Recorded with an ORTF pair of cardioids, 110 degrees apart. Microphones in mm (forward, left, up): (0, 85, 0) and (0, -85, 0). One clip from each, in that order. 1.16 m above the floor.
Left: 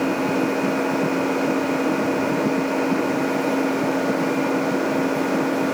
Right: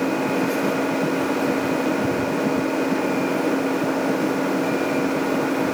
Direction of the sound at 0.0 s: 10° left.